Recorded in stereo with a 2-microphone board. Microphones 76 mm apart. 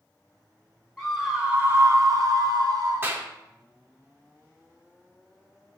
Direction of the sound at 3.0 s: 25° right (ahead or behind).